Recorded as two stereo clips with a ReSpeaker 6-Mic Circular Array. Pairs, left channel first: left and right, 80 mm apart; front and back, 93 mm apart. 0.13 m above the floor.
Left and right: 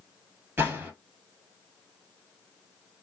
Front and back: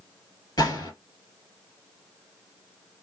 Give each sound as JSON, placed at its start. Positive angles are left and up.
{"t": 0.6, "sound": "a gunshot", "azimuth_deg": -35, "distance_m": 1.7}